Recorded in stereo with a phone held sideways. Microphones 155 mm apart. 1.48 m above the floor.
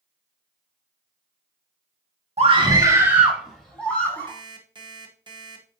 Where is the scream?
40° right (ahead or behind), 1.6 m; by 4.3 s 15° left (ahead or behind), 3 m.